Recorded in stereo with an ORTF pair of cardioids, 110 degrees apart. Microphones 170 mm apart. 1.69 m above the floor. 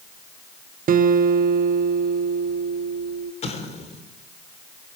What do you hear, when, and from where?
0.9 s a guitar: 55° right, 1.7 m
3.4 s an explosion: 40° left, 4 m